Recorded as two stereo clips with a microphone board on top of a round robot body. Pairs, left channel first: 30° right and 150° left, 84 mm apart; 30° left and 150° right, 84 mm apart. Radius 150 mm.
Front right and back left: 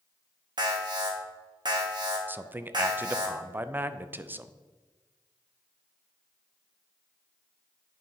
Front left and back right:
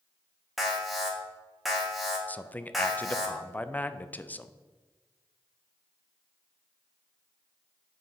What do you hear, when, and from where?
0.6 s an alarm: 120° left, 1.6 m
2.3 s a man speaking: 95° left, 0.5 m